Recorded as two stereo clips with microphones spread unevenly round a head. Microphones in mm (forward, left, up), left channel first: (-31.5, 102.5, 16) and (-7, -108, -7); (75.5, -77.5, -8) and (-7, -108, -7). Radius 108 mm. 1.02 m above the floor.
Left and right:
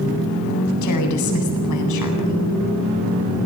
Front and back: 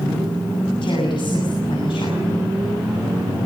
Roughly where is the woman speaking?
Left.